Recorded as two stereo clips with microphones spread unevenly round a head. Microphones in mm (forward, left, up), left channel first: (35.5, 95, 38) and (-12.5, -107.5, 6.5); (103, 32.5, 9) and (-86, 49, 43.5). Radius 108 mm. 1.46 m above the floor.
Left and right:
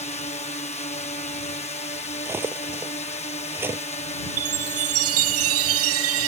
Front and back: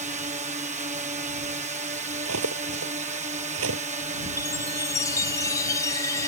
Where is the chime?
85° right.